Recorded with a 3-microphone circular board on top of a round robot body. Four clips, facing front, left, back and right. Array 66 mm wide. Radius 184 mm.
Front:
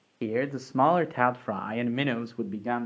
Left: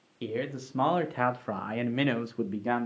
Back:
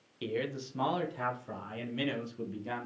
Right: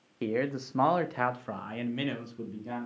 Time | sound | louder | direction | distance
0.2 | a man speaking | right 3 dB, front 6 dB | 35° right | 1.1 m